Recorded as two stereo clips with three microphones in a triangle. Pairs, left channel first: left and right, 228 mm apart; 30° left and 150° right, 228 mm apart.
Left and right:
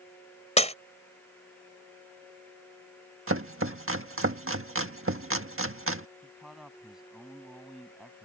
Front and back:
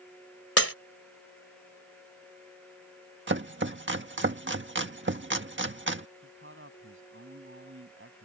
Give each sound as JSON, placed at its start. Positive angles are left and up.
{"t": 0.6, "sound": "breaking glass", "azimuth_deg": 30}
{"t": 3.3, "sound": "chopping", "azimuth_deg": -115}
{"t": 6.2, "sound": "a man speaking", "azimuth_deg": 180}